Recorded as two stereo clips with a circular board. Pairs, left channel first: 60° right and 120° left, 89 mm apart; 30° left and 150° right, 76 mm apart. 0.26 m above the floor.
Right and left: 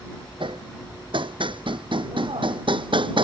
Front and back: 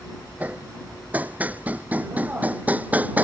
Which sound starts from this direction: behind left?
Hammering, at 0.4 s.